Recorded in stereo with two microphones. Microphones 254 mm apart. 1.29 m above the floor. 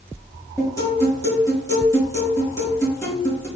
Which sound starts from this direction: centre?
A guitar, at 0.6 s.